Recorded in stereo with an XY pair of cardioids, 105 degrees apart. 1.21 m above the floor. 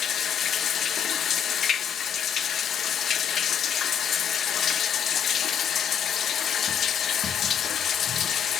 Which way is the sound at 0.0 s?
60° left.